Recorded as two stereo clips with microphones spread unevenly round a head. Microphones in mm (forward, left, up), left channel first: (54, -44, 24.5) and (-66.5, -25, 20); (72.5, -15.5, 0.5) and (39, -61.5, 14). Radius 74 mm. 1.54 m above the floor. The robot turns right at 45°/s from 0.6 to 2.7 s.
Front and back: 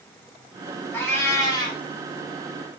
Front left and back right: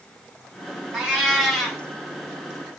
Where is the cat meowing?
75° right, 0.9 m; by 1.8 s 35° right, 0.9 m.